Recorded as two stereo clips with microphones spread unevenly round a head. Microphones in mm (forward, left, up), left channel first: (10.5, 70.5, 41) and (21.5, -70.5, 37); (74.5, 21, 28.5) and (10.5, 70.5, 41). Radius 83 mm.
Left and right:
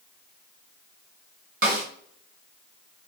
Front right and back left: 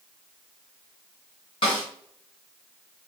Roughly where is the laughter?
I don't hear laughter.